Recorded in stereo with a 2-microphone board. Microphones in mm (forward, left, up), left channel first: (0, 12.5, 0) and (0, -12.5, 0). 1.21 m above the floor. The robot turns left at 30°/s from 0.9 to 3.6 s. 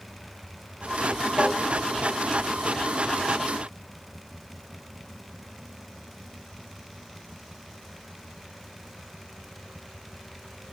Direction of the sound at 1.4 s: 65° right (ahead or behind).